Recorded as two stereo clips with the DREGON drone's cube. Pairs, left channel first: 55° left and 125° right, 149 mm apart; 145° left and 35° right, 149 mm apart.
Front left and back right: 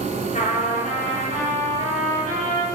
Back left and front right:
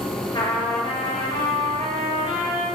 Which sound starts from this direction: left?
A trumpet, at 0.3 s.